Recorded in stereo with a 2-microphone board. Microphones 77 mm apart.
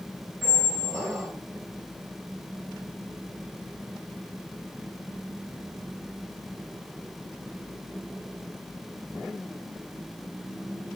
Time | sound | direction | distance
0.4 | a squeak | 35° right (ahead or behind) | 1.5 m